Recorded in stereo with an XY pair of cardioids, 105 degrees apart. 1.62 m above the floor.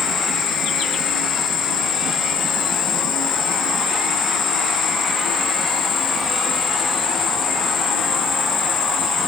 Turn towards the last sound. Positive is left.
turn(degrees=70)